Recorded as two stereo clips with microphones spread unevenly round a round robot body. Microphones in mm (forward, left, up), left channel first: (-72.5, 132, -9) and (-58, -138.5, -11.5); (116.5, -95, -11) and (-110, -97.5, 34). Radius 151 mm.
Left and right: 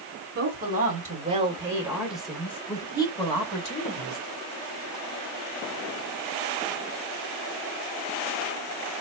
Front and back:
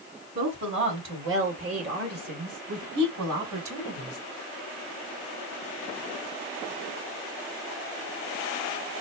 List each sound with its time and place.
0.3 s a woman speaking: 135° right, 2 m; by 4.2 s 150° left, 2.5 m